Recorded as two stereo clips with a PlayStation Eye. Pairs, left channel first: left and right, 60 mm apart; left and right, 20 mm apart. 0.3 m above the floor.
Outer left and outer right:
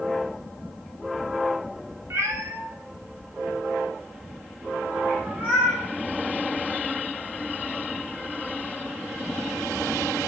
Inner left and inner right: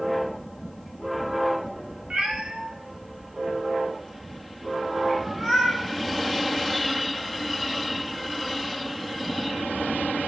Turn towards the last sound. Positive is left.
turn(degrees=-20)  # may be behind; listen again after turning